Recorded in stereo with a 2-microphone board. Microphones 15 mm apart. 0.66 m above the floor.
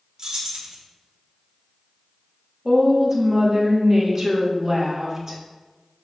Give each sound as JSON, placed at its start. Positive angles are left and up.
{"t": 0.2, "sound": "keys jangling", "side_deg": -45, "distance_m": 1.0}
{"t": 2.6, "sound": "a woman speaking", "side_deg": -35, "distance_m": 1.2}